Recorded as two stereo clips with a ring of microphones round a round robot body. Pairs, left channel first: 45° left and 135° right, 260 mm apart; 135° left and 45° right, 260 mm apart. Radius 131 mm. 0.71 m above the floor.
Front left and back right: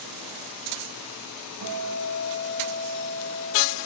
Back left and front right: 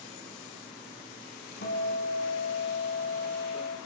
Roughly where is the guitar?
Behind.